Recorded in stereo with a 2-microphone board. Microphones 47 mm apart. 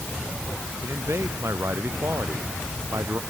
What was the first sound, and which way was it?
A man speaking, 70° right (ahead or behind).